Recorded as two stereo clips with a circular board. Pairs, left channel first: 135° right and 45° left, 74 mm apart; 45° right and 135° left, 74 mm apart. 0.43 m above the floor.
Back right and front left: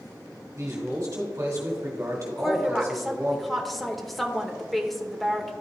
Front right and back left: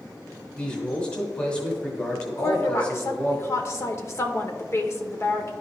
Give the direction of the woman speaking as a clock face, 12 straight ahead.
2 o'clock.